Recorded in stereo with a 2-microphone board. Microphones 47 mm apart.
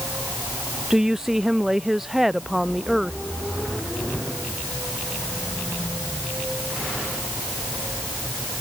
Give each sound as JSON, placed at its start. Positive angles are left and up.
{"t": 0.9, "sound": "a woman speaking", "side_deg": -10}